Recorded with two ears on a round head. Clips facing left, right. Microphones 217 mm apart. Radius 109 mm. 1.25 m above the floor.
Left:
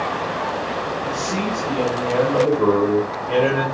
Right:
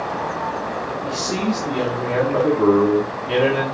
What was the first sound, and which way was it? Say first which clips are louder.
A man speaking: right 4 dB; 55° right (ahead or behind).